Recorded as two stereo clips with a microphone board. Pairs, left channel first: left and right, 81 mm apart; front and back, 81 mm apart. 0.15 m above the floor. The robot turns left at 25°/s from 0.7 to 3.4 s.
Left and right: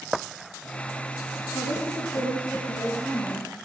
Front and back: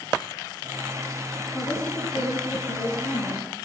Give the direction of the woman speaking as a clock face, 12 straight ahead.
10 o'clock.